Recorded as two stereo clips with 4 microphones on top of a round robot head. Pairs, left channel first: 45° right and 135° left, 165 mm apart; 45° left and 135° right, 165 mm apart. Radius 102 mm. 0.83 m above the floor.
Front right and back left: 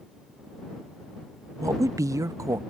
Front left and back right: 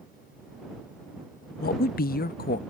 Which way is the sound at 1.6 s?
65° left.